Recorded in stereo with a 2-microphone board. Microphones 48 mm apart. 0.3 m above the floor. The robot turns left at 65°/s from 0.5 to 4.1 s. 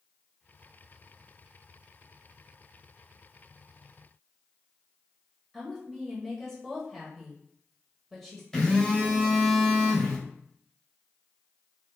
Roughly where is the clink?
I don't hear a clink.